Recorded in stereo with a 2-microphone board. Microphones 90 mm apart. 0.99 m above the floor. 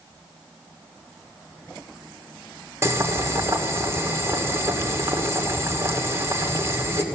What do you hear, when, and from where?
2.8 s boiling: 30° right (ahead or behind), 2 m